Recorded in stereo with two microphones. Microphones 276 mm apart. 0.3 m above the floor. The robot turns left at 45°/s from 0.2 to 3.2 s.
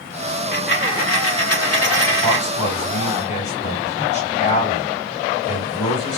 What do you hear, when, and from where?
0.3 s a dropped coin: 145° left, 0.8 m; by 2.5 s 50° left, 0.8 m
2.2 s a man speaking: 85° left, 2 m; by 6.2 s 45° left, 2 m